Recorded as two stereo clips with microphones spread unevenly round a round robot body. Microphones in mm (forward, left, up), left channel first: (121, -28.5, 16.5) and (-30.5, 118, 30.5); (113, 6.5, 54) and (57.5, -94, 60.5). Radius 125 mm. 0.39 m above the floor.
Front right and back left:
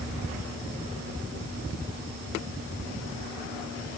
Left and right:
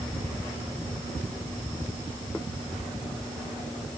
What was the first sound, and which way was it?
Only background noise.